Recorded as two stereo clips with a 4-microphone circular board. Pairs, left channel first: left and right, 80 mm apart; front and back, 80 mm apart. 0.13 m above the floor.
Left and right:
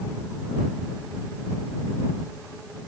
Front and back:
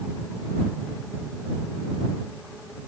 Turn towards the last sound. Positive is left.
No sound to turn to.